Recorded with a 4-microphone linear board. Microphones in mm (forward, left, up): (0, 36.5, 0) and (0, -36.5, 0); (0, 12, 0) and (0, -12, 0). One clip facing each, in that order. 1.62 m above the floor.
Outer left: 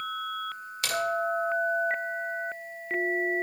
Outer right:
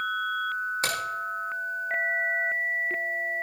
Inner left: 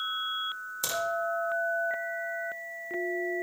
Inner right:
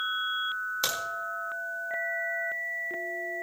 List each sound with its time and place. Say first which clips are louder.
0.8 s a crack: outer right 1 dB, even; 35° right (ahead or behind), 3 m